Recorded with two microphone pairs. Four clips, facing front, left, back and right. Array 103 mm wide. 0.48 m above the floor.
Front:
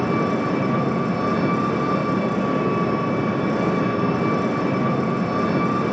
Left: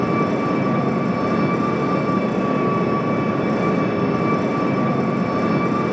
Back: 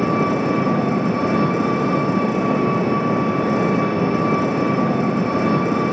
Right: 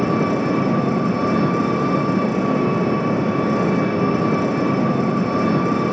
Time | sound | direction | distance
0.0 | an engine running | 160° left | 8.5 m